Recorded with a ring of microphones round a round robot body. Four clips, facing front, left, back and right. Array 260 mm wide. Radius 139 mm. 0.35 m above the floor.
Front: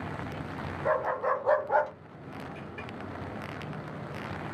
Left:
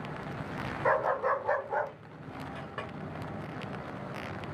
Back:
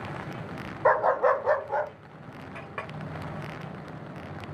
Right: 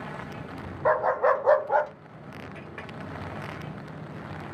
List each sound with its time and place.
0.8 s a dog barking: 160° right, 0.8 m; by 1.9 s 55° right, 0.7 m
2.5 s a clink: 165° left, 0.7 m